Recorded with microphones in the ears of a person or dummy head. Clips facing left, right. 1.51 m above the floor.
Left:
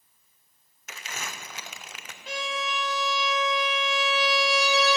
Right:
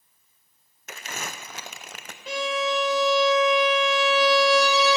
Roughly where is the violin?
Right.